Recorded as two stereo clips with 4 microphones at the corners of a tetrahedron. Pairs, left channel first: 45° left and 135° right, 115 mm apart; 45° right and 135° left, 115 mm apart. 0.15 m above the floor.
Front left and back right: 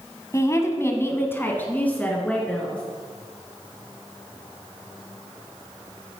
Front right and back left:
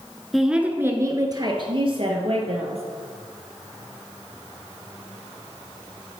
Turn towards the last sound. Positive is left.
turn(degrees=125)